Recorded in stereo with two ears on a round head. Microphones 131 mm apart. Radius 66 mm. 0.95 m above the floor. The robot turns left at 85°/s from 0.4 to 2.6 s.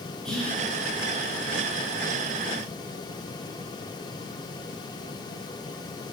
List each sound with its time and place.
0.2 s whispering: 5° left (ahead or behind), 5 m; by 0.6 s 20° left (ahead or behind), 5 m